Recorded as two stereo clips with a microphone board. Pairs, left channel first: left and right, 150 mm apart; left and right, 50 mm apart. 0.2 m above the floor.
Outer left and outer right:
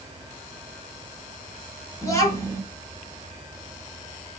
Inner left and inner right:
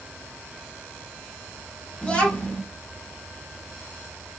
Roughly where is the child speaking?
Left.